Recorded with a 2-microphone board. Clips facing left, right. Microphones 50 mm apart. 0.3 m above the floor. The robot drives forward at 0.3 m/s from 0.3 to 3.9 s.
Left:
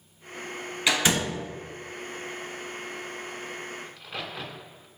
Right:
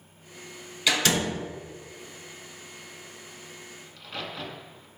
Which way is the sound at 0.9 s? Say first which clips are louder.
Even; 15° left (ahead or behind).